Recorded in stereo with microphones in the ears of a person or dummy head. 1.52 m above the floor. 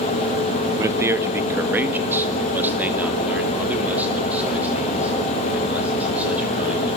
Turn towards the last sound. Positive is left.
turn(degrees=-5)  # may be behind; listen again after turning